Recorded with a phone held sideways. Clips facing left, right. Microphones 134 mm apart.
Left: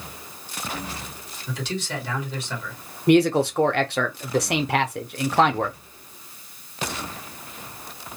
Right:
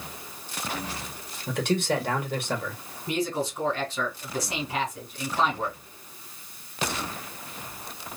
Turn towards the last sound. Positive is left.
turn(degrees=70)  # may be behind; listen again after turning